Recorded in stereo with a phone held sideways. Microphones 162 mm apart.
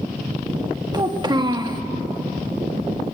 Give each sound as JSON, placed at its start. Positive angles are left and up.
{"t": 0.9, "sound": "a child speaking", "side_deg": -25, "distance_m": 1.5}